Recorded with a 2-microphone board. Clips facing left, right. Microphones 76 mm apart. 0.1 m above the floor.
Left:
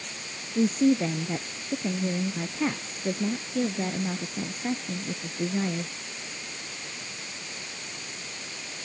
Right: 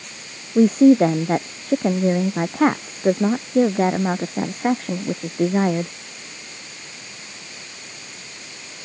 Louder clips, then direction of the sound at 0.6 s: Right 10 dB; 60° right (ahead or behind).